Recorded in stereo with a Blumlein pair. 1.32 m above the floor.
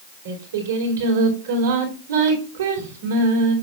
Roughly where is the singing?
Ahead right.